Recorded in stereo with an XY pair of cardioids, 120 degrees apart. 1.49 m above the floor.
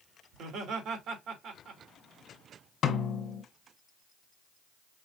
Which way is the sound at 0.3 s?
65° right.